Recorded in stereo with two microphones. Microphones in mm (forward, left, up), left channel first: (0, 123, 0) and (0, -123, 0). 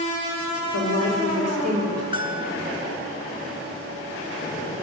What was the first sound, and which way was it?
A woman speaking, 85° right.